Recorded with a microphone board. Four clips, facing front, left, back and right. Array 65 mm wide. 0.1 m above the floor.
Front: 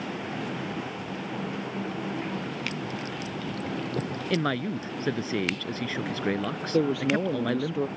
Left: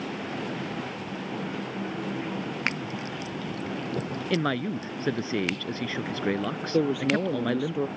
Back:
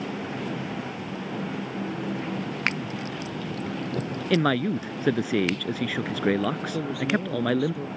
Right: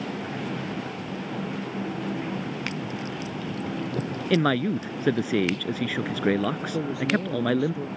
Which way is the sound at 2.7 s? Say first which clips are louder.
Left 2 dB, back 6 dB; 150° left.